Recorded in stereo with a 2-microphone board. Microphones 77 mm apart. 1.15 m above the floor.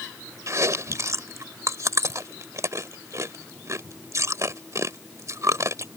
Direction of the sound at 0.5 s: 40° right (ahead or behind).